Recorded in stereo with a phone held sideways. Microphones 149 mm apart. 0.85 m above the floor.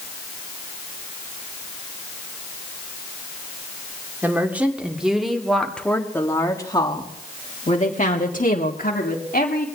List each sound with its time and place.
4.2 s a woman speaking: 15° right (ahead or behind), 2.5 m; by 9.7 s 75° left (ahead or behind), 2 m